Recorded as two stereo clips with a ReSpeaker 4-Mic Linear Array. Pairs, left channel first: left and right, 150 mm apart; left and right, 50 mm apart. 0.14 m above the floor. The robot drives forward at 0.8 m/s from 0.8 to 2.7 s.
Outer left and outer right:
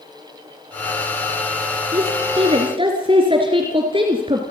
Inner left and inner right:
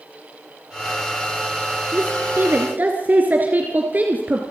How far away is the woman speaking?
About 2.5 m.